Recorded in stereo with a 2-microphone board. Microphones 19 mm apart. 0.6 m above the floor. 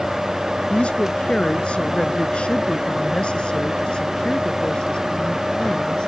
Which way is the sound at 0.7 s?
85° left.